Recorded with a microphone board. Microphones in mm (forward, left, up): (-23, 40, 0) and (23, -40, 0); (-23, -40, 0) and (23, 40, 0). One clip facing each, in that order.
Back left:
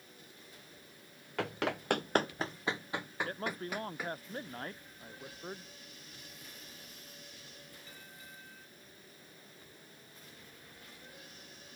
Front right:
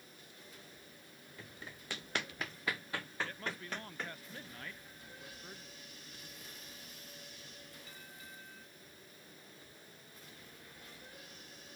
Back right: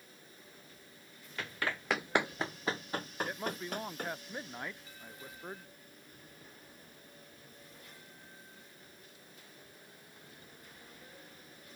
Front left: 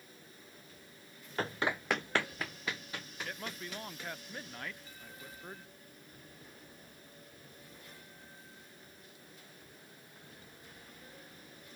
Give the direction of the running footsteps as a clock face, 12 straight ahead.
8 o'clock.